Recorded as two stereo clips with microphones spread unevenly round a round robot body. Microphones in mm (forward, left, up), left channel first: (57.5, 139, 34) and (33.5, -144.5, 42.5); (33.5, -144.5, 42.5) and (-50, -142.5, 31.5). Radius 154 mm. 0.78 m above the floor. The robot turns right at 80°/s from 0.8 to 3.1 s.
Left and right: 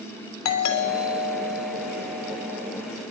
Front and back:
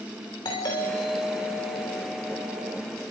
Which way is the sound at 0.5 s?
60° left.